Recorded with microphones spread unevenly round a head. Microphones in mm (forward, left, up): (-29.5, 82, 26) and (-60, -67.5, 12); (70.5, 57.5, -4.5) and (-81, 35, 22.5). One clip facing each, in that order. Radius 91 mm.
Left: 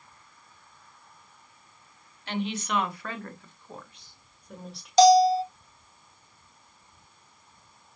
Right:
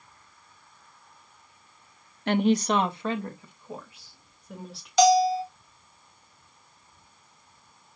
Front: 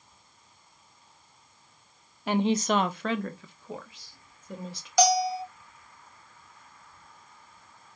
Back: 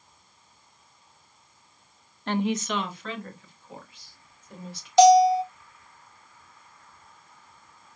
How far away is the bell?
About 2.5 m.